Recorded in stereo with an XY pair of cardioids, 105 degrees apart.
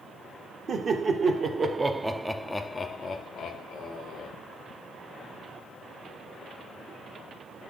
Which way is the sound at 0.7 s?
50° right.